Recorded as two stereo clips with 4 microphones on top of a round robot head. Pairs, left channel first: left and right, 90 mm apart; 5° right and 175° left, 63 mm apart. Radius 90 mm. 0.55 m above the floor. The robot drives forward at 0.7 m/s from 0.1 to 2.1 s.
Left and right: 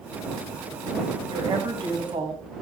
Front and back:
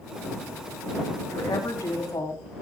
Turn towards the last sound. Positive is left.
turn(degrees=-50)